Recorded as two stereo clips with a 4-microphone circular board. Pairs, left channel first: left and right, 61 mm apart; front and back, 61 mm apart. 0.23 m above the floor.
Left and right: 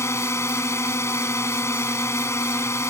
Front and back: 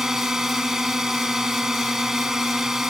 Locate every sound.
0.0 s a drone: 100° left